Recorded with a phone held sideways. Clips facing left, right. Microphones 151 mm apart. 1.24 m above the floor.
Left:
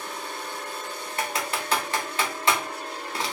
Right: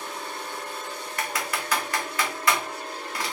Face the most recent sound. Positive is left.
turn(degrees=25)  # may be behind; listen again after turning